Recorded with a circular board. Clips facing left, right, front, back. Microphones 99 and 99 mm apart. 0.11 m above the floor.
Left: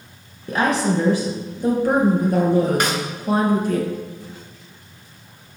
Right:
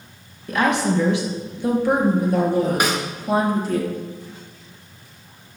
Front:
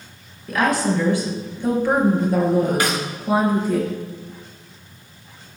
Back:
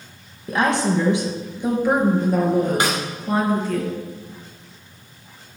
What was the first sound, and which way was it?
A woman speaking, 130° left.